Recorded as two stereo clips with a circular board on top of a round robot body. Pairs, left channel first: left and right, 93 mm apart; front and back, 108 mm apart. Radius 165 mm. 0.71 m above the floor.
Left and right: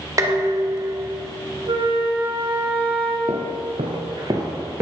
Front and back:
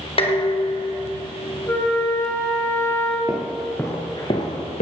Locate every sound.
0.2 s dishes clattering: 35° right, 2 m
1.7 s a flute: 70° right, 3 m
3.3 s footsteps: 100° right, 0.9 m; by 4.8 s 25° right, 0.9 m